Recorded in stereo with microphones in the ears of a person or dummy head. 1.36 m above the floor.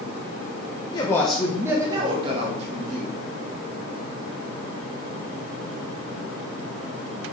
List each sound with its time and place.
0.9 s a woman speaking: 25° left (ahead or behind), 1.3 m; by 3.2 s 45° right (ahead or behind), 3.5 m